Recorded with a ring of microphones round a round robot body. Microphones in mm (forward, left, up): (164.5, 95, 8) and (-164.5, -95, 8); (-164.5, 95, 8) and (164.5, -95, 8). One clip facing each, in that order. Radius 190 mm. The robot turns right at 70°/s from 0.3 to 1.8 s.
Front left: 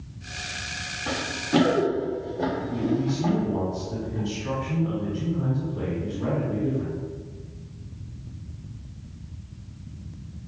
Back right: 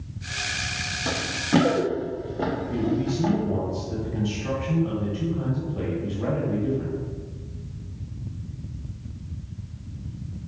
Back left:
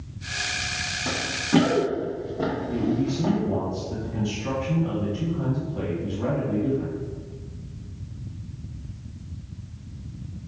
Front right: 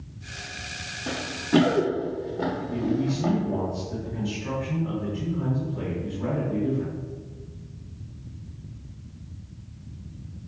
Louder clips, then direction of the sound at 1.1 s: Back right 2 dB, even; 165° right.